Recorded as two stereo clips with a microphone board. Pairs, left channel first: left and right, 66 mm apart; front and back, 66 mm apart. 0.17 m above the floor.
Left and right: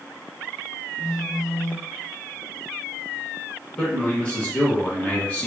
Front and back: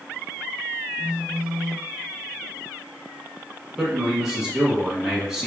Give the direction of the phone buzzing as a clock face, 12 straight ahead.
8 o'clock.